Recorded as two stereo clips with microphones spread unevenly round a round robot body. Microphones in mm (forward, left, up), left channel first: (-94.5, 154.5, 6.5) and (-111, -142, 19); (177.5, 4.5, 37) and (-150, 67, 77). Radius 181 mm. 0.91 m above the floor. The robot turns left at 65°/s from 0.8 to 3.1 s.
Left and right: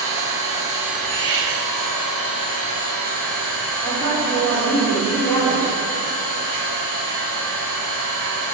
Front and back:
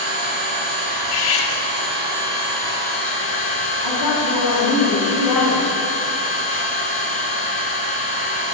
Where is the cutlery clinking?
15° right, 1.0 m; by 1.5 s 45° right, 1.0 m.